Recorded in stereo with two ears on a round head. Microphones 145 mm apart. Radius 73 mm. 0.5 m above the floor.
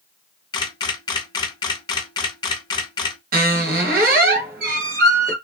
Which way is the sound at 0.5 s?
25° left (ahead or behind).